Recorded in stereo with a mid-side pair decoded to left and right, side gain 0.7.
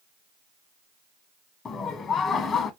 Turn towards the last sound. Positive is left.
turn(degrees=30)